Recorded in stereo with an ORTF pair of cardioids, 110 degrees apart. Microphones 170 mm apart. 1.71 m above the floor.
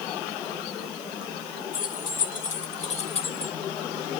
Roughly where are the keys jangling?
Ahead left.